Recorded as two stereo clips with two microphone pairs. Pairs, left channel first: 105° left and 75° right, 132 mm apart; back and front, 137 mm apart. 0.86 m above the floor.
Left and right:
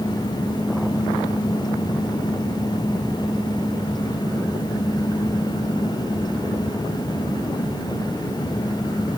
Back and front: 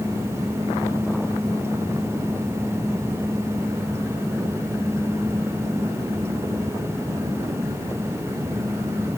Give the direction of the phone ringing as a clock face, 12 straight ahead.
I don't hear a phone ringing.